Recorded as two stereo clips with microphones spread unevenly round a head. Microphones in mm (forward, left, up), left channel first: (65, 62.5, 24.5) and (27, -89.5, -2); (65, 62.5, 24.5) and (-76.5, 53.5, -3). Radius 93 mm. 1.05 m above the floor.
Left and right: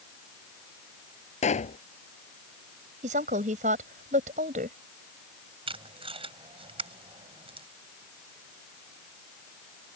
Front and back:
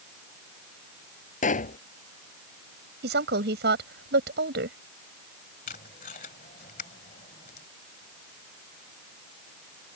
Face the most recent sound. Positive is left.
turn(degrees=-50)